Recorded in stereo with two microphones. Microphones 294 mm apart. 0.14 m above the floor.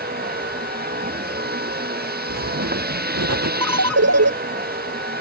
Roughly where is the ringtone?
Right.